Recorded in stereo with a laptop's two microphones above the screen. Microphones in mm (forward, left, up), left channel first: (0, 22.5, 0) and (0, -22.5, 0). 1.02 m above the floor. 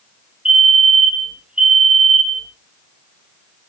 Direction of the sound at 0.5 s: 20° right (ahead or behind).